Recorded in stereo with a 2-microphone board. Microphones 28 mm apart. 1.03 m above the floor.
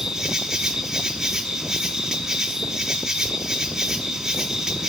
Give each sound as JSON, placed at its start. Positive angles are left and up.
{"t": 0.0, "sound": "an insect", "side_deg": -20, "distance_m": 1.2}